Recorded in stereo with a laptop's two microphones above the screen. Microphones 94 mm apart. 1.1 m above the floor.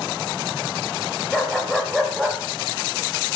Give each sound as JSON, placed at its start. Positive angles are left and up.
{"t": 1.3, "sound": "a dog barking", "side_deg": 5, "distance_m": 1.9}